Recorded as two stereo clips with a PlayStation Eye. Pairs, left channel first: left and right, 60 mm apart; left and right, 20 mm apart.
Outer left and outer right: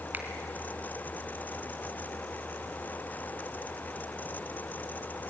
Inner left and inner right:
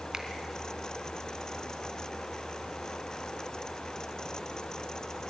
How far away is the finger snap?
About 3 m.